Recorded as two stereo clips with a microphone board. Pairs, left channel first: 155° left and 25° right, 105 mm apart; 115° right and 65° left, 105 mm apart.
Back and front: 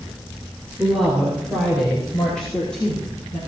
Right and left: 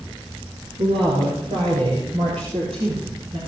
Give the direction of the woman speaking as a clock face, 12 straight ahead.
10 o'clock.